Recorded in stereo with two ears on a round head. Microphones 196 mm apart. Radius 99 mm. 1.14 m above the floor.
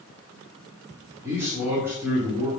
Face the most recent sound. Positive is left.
turn(degrees=-15)  # may be behind; listen again after turning